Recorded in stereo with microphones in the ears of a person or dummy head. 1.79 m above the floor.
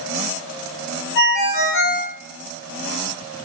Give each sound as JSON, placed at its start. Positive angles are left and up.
{"t": 1.1, "sound": "a ringtone", "side_deg": 60, "distance_m": 1.8}